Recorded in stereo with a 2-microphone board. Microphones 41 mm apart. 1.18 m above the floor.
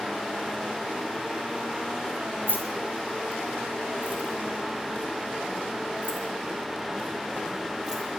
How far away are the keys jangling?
About 3.5 m.